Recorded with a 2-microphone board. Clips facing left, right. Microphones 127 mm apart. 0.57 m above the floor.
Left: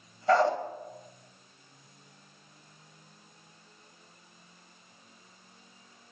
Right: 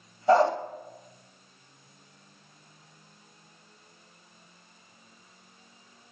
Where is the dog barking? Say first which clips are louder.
Right 3 dB; 20° right (ahead or behind), 1.2 m.